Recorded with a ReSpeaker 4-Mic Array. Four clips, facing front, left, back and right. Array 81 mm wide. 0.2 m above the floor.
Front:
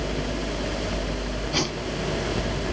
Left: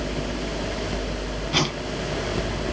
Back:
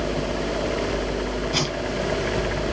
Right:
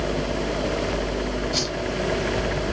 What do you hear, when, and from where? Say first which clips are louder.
1.5 s a whoosh: left 3 dB, back 1 dB; 95° left, 0.6 m